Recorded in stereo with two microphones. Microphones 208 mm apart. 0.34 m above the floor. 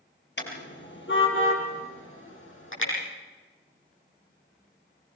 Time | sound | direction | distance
0.4 | a car horn | 60° left (ahead or behind) | 4.5 m